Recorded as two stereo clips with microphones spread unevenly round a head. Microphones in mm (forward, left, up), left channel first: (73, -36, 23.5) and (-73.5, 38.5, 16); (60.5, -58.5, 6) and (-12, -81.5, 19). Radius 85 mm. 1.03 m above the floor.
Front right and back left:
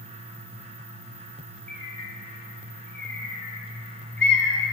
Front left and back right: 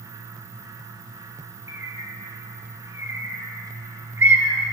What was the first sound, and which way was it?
A bird, 110° right.